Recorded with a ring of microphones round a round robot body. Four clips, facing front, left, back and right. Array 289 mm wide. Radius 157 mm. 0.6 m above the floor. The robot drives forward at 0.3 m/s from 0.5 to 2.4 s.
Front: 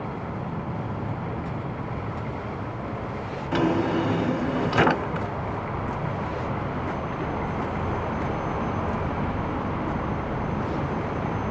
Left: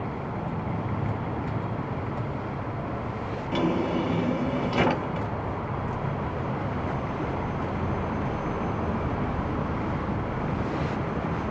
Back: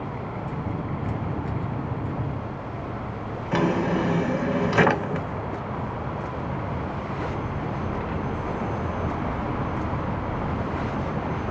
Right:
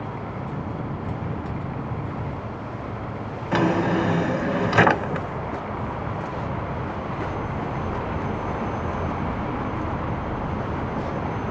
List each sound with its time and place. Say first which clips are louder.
3.5 s a drawer: right 5 dB, even; 110° right, 0.6 m